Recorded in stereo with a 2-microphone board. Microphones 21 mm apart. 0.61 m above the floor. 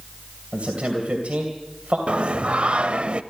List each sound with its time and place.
0.5 s a man speaking: 75° right (ahead or behind), 2.5 m
2.1 s singing: 55° right (ahead or behind), 0.5 m